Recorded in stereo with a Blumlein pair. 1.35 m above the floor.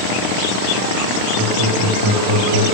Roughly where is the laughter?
Ahead right.